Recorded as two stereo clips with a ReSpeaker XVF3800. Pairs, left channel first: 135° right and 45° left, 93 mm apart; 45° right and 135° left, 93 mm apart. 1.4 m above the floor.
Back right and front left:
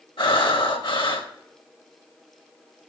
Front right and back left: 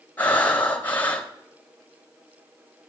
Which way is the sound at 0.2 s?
115° right.